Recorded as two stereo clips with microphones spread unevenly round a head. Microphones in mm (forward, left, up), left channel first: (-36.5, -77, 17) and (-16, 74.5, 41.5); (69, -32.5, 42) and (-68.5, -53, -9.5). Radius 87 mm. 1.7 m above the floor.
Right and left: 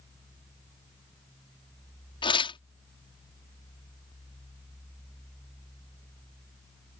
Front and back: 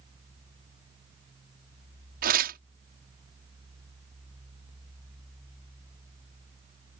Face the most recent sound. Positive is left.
turn(degrees=-155)